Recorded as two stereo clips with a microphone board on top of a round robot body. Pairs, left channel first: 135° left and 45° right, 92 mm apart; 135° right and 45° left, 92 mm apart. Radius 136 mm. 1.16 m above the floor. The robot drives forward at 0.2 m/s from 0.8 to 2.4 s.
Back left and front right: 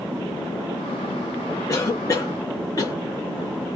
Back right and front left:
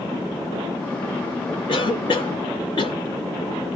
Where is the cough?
175° right, 0.7 m.